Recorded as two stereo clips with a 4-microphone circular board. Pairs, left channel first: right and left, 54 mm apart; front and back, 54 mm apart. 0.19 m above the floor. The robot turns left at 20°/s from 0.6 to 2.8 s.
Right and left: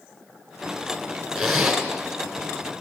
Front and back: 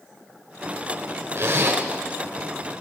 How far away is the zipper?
About 2 m.